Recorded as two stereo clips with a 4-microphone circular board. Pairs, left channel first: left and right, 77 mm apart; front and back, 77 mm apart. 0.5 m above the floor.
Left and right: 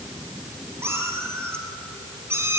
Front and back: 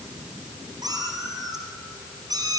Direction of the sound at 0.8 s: 145° right.